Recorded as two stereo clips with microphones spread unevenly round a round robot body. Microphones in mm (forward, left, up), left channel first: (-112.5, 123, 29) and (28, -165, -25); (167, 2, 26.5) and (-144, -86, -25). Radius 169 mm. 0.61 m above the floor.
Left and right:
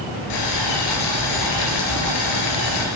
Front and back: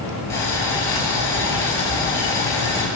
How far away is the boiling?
About 3.5 m.